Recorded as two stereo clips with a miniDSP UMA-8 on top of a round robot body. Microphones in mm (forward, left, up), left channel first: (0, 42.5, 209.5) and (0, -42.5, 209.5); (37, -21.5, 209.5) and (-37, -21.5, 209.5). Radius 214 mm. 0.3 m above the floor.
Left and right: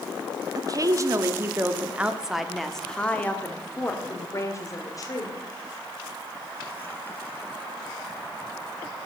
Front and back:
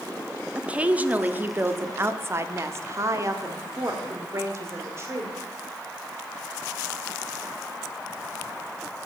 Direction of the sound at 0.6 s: 110° right.